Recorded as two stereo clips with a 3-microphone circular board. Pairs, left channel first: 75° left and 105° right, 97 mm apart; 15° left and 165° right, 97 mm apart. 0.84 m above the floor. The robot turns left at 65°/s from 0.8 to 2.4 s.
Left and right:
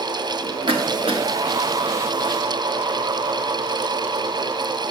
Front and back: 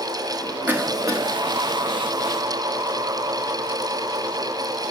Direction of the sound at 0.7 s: 100° right.